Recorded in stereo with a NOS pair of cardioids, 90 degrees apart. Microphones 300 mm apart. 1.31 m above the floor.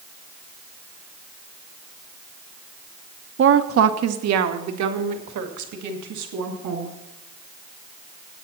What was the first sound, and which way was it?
A woman speaking, 40° right.